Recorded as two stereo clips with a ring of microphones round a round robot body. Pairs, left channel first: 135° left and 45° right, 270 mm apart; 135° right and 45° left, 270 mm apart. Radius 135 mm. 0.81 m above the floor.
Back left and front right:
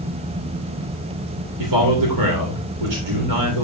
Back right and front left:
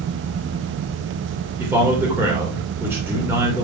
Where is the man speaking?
35° right, 3 m.